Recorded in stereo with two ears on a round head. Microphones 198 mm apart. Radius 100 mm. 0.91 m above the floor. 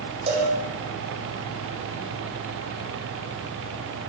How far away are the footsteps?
No footsteps in this recording.